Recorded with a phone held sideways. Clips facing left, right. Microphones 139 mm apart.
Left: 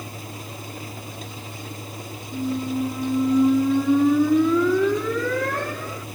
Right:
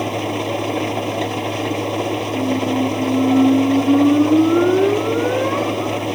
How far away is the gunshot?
No gunshot in this recording.